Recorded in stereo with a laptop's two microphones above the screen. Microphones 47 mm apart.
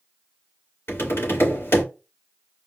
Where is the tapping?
65° left (ahead or behind), 3 m.